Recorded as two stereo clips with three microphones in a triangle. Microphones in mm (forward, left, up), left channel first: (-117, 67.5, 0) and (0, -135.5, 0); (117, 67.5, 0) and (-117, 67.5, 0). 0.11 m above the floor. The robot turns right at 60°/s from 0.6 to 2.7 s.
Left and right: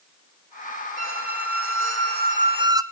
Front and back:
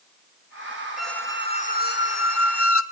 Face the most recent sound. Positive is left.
turn(degrees=10)